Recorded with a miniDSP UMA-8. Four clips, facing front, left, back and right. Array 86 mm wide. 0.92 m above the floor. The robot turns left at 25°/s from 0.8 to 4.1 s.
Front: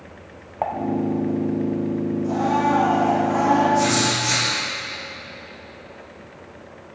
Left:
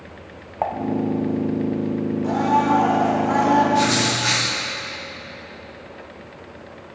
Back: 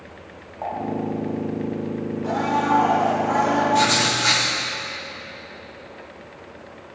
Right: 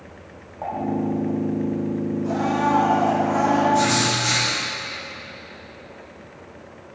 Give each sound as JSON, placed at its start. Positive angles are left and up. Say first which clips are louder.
{"t": 0.6, "sound": "dishes clattering", "louder": "left 5 dB, front 4 dB", "azimuth_deg": 60, "distance_m": 0.8}
{"t": 2.2, "sound": "a blender", "louder": "left 4 dB, even", "azimuth_deg": 140, "distance_m": 3.0}
{"t": 3.7, "sound": "writing", "louder": "even, even", "azimuth_deg": 165, "distance_m": 2.5}